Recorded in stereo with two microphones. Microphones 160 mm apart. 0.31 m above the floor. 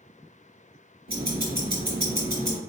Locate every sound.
1.1 s ticking: 70° right (ahead or behind), 1.7 m